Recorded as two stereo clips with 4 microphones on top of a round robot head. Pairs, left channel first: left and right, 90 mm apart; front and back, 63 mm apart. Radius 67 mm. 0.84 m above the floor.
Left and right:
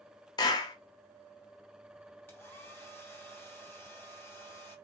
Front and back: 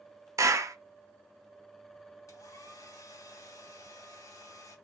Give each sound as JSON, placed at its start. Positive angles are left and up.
{"t": 0.4, "sound": "a clap", "azimuth_deg": 140, "distance_m": 0.6}
{"t": 2.3, "sound": "a hair dryer", "azimuth_deg": 25, "distance_m": 2.0}